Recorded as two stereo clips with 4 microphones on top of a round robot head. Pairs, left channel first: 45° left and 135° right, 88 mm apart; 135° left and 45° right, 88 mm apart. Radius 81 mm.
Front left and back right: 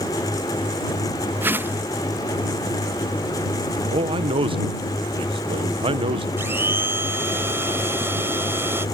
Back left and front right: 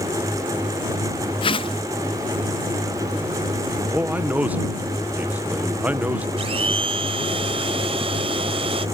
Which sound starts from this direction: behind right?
A man speaking, at 3.9 s.